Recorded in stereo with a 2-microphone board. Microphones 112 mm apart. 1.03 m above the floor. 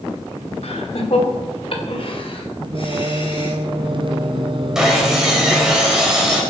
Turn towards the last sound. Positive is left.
turn(degrees=-5)  # may be behind; listen again after turning